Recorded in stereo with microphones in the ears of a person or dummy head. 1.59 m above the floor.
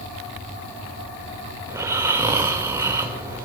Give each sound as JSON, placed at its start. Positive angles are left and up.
{"t": 1.7, "sound": "snoring", "side_deg": -25, "distance_m": 1.6}